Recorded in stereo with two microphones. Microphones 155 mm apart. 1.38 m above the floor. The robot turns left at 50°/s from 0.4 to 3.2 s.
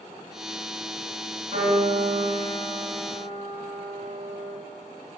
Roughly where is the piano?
Ahead right.